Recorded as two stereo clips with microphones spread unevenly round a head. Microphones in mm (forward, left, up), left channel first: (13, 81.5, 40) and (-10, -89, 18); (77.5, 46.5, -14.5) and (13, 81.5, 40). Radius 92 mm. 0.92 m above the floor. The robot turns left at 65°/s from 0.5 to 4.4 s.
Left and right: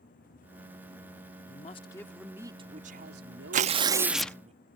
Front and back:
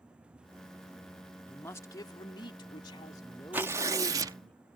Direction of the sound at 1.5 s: 40° left.